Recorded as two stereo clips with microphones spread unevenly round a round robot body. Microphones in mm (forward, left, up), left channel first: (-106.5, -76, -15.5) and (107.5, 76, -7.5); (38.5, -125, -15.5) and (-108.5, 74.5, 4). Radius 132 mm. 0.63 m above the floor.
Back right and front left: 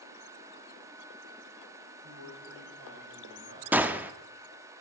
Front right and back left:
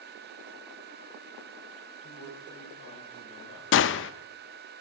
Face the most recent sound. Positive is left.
turn(degrees=-50)